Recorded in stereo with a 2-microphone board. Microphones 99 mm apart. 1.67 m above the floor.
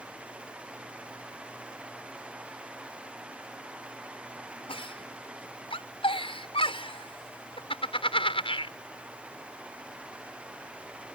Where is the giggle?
70° left (ahead or behind).